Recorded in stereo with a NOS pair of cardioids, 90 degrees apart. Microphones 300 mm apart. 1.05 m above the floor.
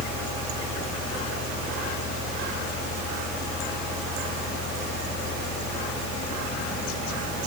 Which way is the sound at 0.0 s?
60° left.